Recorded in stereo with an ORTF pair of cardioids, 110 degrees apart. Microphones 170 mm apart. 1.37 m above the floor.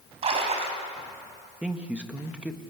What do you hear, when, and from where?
0.2 s a splash: 40° right, 4.5 m
1.6 s a man speaking: 10° right, 1.6 m